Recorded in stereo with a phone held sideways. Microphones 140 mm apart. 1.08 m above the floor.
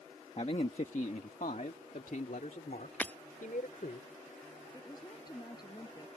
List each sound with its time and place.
0.4 s a man speaking: 45° left (ahead or behind); by 4.0 s 80° left
3.0 s breaking glass: 10° left (ahead or behind)
4.7 s a woman speaking: 30° left (ahead or behind)